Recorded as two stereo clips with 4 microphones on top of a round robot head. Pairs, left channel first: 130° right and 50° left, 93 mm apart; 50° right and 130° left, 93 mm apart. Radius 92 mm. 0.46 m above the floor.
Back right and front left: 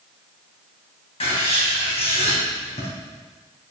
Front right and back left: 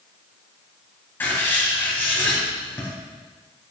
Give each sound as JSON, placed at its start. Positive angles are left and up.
{"t": 1.2, "sound": "writing", "azimuth_deg": -115, "distance_m": 2.5}